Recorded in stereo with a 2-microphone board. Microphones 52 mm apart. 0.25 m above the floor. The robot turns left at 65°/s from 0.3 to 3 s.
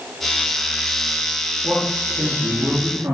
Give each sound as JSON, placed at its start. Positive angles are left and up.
{"t": 1.6, "sound": "a man speaking", "azimuth_deg": 20, "distance_m": 6.5}